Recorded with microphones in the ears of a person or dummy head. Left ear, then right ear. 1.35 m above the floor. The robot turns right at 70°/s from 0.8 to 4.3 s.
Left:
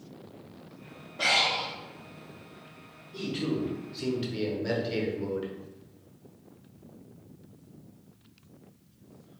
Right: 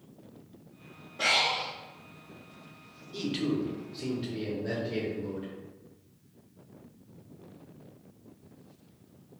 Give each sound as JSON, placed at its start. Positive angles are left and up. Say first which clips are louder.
{"t": 1.2, "sound": "breathing", "louder": "left 1 dB", "azimuth_deg": 180, "distance_m": 0.6}
{"t": 3.1, "sound": "a man speaking", "louder": "even", "azimuth_deg": -50, "distance_m": 0.7}